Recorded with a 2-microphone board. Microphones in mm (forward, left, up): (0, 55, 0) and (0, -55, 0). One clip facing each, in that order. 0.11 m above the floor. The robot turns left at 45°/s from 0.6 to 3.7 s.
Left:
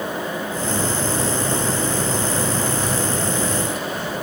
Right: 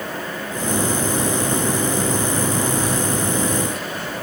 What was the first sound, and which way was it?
Only background noise.